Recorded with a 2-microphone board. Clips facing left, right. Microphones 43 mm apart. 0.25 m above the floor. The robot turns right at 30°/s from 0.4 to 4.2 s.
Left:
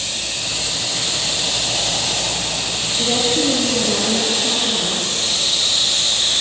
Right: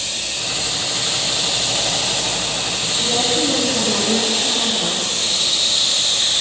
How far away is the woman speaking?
About 6.5 m.